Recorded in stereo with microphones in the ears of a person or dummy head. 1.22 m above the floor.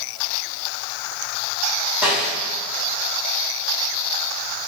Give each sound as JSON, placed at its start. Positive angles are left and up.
{"t": 2.0, "sound": "a snare drum", "side_deg": -5, "distance_m": 1.9}